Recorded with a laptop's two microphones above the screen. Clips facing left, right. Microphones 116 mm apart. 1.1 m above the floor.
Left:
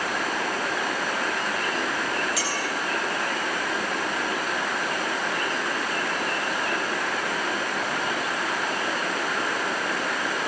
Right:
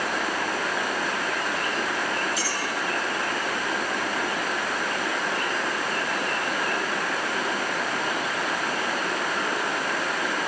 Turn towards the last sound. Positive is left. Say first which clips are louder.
# left 1 dB
turn(degrees=75)  # may be behind; listen again after turning